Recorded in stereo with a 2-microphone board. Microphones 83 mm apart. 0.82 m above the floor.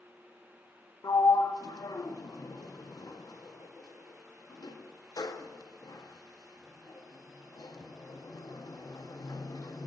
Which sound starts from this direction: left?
A sliding door, at 1.0 s.